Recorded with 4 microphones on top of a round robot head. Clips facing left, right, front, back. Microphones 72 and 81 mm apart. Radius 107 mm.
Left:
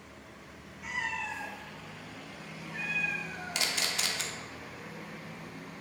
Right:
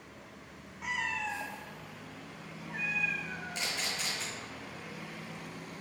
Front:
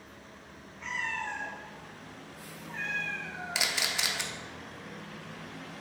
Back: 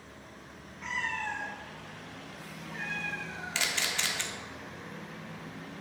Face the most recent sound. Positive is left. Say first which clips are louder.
# left 5 dB, even
turn(degrees=80)